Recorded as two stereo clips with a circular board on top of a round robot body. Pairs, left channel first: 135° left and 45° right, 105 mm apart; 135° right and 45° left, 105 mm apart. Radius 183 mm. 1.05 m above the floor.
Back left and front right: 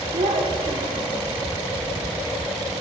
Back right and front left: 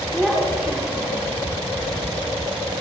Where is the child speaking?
45° right, 2.5 m; by 1.3 s 20° right, 2 m.